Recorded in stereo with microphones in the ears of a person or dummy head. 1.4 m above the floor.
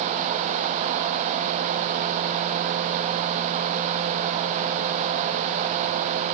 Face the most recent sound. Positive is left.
No sound to turn to.